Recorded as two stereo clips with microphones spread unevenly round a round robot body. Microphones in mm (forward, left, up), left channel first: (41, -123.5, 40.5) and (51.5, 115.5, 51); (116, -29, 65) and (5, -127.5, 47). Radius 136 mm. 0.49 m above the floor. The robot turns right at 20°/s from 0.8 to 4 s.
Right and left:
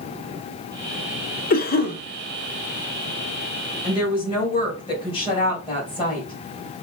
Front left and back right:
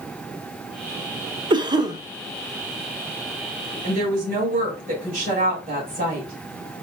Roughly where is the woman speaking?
Behind.